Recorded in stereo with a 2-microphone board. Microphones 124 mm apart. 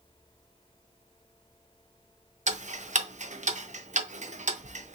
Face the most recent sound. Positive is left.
turn(degrees=-75)  # may be behind; listen again after turning